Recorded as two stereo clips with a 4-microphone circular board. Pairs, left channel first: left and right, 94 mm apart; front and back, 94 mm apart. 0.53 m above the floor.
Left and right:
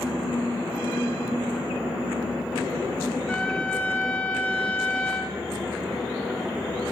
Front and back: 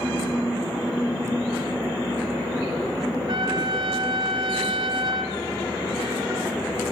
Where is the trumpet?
165° left, 2.5 m.